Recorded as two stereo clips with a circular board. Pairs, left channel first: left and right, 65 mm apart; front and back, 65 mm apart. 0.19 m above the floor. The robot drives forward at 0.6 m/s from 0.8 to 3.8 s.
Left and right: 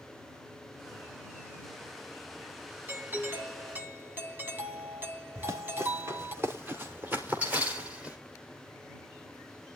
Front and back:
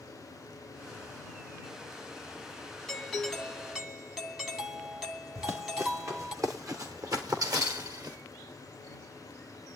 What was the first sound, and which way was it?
A doorbell, 75° right.